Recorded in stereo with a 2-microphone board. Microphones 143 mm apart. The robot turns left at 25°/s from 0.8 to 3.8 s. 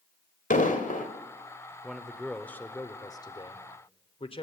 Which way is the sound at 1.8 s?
175° right.